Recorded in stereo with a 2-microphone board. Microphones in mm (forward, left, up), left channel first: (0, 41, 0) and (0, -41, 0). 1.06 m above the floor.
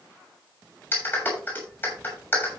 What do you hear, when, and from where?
0.9 s a clap: 20° left (ahead or behind), 7 m